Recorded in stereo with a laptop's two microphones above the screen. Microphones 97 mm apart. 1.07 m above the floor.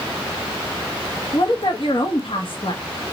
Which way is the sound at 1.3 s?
60° left (ahead or behind).